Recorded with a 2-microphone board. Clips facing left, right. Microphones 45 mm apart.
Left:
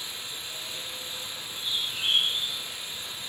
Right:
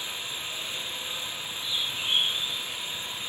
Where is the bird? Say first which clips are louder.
Left 1 dB; 70° left (ahead or behind), 7 m.